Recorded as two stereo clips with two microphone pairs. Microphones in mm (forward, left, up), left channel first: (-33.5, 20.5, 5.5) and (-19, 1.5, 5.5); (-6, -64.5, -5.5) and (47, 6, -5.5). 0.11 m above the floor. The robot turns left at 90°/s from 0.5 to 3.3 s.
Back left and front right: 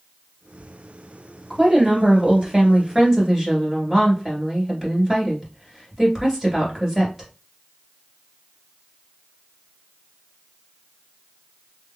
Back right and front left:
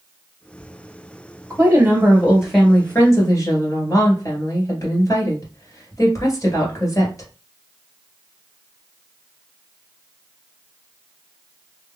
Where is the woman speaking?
55° left, 2.0 m; by 7.3 s 105° right, 2.0 m.